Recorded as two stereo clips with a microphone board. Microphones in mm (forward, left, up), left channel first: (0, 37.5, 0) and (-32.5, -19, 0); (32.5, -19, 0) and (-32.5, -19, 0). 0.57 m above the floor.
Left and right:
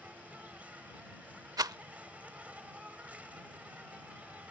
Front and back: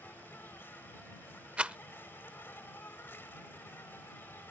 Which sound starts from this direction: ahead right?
An insect, at 0.0 s.